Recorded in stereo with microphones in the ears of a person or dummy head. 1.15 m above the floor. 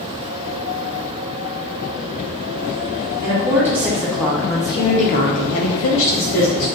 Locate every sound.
3.2 s a woman speaking: 15° right (ahead or behind), 1.5 m; by 6.7 s 60° left (ahead or behind), 1.2 m